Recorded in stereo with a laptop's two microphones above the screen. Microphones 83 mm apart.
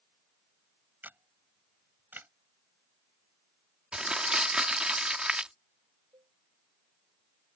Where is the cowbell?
85° right.